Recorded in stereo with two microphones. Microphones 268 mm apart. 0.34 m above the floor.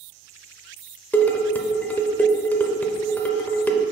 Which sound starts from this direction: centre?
Dishes clattering, at 1.1 s.